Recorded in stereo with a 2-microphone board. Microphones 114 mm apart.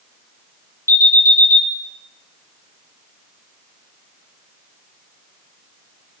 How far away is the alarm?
About 1.0 m.